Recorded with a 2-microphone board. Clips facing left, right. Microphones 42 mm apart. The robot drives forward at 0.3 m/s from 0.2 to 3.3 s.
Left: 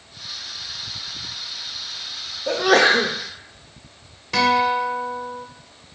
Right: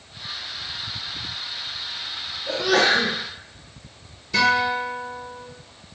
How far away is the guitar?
About 1.4 m.